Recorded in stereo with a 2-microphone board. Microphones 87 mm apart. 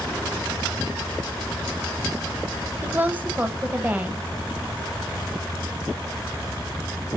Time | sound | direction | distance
2.8 | a woman speaking | 20° right (ahead or behind) | 1.0 m